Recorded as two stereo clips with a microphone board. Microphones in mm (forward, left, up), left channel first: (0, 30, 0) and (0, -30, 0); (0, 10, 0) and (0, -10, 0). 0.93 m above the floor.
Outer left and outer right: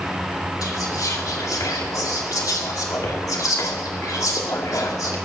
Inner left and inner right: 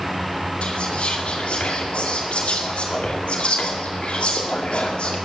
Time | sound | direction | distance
0.6 | whispering | 75° left (ahead or behind) | 2 m